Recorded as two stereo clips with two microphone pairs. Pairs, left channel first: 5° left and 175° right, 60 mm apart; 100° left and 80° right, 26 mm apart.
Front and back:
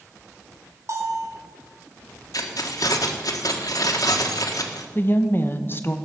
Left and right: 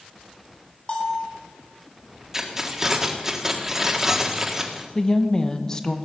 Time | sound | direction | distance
0.9 | a bell | 150° left | 3 m
2.3 | keys jangling | 5° right | 1.7 m
5.0 | a woman speaking | 45° left | 1.1 m